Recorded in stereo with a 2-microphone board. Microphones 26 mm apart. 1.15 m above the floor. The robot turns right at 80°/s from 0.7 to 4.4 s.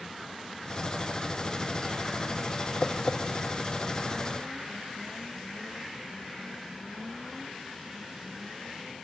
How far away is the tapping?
About 0.9 m.